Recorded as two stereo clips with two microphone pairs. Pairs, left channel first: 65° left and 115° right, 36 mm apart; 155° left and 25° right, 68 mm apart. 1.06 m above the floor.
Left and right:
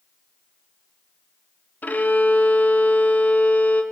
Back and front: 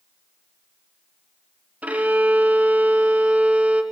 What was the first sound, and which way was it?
A violin, 45° left.